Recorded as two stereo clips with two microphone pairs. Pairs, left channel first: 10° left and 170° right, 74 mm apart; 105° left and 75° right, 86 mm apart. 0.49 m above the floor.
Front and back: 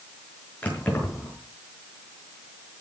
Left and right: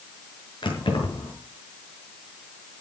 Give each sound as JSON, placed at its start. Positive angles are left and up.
{"t": 0.6, "sound": "keys jangling", "azimuth_deg": 80, "distance_m": 5.5}